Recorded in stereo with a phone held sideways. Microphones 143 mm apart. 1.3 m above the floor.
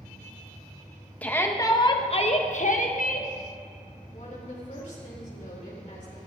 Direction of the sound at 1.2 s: 10° left (ahead or behind).